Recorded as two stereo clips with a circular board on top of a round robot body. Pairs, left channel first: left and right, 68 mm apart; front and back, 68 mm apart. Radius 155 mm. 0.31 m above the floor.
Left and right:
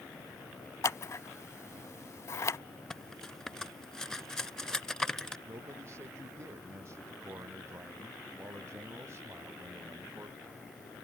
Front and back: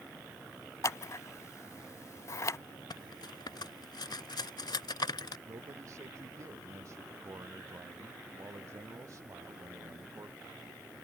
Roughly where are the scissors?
Ahead left.